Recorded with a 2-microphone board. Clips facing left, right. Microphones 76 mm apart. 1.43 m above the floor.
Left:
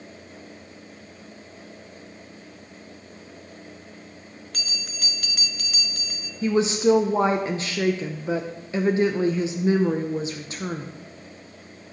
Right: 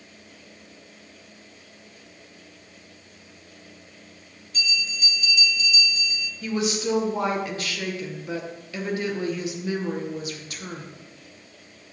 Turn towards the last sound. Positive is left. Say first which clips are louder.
# left 6 dB
turn(degrees=30)  # may be behind; listen again after turning